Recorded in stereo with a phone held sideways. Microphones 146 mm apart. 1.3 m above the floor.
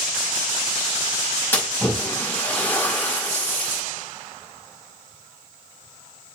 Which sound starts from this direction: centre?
A splash, at 1.5 s.